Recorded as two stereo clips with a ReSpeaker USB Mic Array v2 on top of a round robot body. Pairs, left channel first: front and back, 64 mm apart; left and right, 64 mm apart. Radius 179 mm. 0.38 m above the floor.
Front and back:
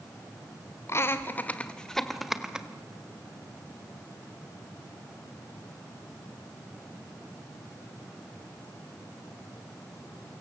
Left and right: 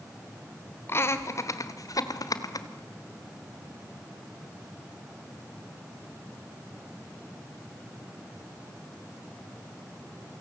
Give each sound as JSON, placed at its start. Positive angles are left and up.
{"t": 0.9, "sound": "laughter", "azimuth_deg": 45, "distance_m": 2.0}